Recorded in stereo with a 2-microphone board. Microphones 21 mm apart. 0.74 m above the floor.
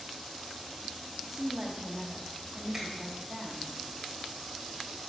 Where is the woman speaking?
15° right (ahead or behind), 1.5 m.